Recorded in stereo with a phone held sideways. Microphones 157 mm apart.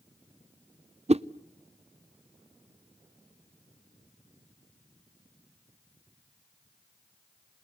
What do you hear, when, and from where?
1.1 s a whoosh: 45° right (ahead or behind), 0.5 m